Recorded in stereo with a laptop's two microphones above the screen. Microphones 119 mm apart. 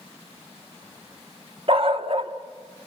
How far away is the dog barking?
About 0.8 m.